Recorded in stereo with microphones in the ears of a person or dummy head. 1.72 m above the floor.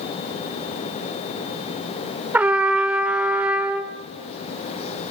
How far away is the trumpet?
About 0.8 m.